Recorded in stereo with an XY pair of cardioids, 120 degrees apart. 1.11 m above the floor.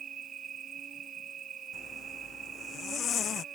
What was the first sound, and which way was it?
An insect, 50° right.